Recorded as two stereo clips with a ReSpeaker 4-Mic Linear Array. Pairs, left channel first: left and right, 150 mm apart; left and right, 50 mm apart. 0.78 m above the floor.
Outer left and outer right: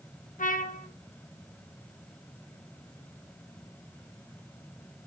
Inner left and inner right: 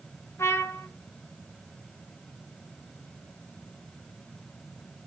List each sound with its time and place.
0.4 s a trumpet: 60° left (ahead or behind), 0.7 m